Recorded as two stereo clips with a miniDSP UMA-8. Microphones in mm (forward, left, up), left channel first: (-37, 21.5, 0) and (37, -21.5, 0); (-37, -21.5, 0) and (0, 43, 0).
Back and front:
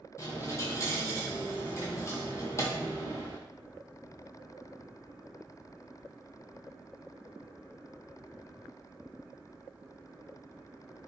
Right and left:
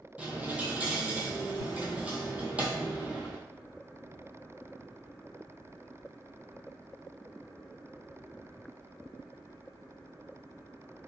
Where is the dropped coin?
125° left, 0.8 m.